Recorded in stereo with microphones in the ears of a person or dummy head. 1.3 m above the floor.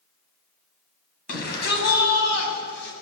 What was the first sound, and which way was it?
A shout, 60° left (ahead or behind).